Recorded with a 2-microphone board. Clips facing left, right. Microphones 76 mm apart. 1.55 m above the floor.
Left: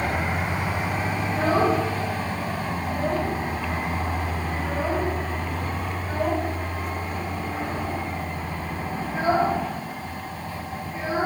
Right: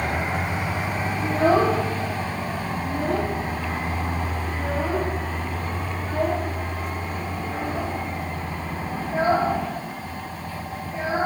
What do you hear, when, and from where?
1.2 s a child speaking: 75° right (ahead or behind), 3.5 m